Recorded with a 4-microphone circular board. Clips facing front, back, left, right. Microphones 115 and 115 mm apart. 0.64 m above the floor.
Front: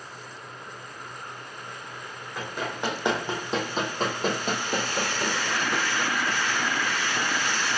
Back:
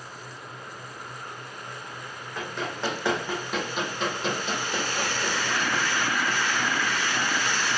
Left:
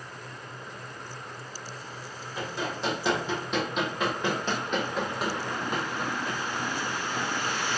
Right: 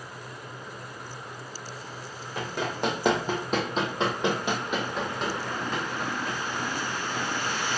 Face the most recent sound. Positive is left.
turn(degrees=35)